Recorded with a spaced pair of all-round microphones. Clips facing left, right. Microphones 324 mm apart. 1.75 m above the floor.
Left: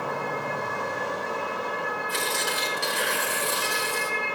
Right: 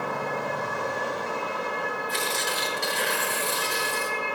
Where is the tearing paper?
10° left (ahead or behind), 3.5 m.